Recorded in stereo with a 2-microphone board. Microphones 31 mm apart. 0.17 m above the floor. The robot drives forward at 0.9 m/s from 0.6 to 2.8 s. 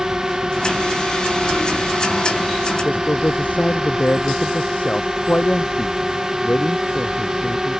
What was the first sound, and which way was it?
A drone, 20° right (ahead or behind).